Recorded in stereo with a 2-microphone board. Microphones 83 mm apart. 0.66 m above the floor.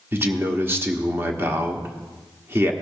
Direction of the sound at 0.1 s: 30° right (ahead or behind).